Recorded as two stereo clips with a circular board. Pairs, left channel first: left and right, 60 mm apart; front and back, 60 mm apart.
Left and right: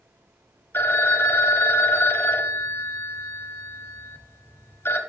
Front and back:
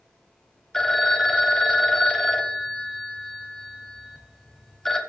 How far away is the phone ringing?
About 0.8 m.